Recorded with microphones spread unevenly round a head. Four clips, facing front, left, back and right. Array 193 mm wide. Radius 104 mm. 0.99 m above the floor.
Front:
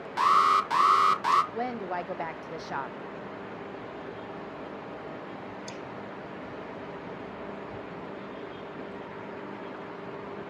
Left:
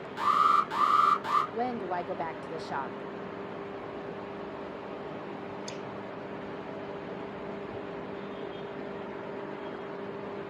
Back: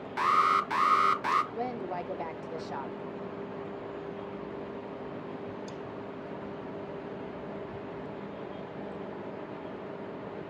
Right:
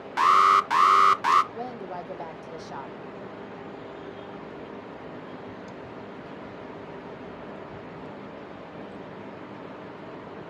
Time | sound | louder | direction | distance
0.2 | an alarm | right 6 dB, front 3 dB | 70° right | 1.0 m
1.5 | a woman speaking | left 3 dB, front 2 dB | 40° left | 0.7 m